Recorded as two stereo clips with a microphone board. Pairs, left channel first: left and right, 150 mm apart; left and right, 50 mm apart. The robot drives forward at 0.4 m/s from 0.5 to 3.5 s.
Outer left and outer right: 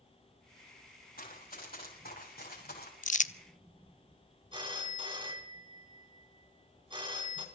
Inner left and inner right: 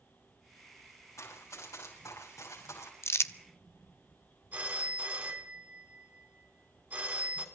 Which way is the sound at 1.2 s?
70° left (ahead or behind).